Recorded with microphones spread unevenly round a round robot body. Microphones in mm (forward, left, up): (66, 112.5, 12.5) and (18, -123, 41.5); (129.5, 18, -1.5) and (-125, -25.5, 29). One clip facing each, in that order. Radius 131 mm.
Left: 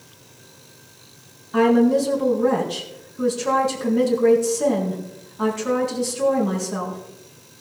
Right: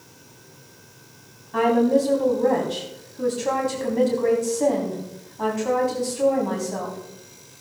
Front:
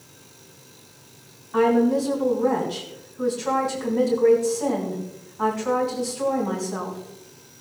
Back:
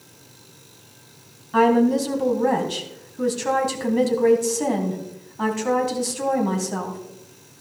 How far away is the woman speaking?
About 3.5 m.